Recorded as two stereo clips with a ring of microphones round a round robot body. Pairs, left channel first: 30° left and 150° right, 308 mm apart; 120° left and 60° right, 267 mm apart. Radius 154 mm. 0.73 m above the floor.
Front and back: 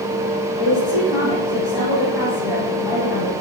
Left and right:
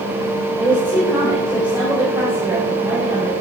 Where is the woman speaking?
20° left, 4.5 m.